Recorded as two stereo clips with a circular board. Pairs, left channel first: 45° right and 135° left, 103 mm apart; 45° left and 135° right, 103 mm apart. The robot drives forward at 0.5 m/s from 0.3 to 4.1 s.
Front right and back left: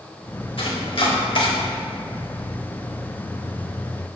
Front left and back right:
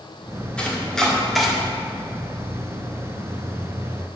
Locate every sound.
0.6 s chopping: 35° right, 1.5 m; by 1.5 s 50° right, 1.2 m